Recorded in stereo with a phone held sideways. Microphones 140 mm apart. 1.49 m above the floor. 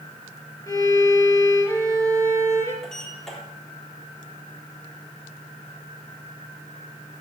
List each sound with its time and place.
0.7 s a violin: 20° left (ahead or behind), 5 m
2.8 s a sliding door: 5° left (ahead or behind), 3.5 m